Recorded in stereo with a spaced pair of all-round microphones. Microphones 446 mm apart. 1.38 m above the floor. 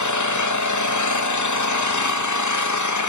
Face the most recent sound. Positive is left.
turn(degrees=40)  # may be behind; listen again after turning